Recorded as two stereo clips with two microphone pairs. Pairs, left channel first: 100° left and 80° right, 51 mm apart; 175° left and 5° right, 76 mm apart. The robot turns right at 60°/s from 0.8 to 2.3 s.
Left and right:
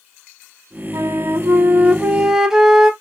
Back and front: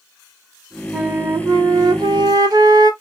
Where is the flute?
80° right, 0.5 m; by 2.9 s straight ahead, 0.5 m.